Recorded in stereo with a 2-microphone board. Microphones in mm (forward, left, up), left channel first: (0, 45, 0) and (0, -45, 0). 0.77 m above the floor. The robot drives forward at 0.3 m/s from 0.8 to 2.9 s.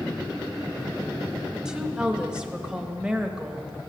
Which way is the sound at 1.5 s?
10° right (ahead or behind).